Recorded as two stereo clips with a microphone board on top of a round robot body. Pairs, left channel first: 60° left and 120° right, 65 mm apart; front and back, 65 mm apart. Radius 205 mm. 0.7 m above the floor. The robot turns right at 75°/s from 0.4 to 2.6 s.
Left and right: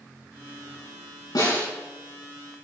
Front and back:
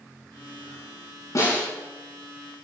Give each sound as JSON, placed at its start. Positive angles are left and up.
{"t": 1.4, "sound": "a snare drum", "azimuth_deg": 45, "distance_m": 7.0}